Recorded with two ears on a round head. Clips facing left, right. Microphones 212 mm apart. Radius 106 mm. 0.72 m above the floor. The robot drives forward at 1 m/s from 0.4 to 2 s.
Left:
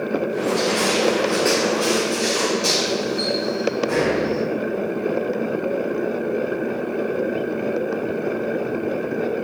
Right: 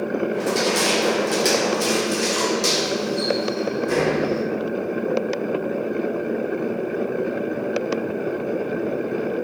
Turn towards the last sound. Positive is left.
turn(degrees=-35)  # may be behind; listen again after turning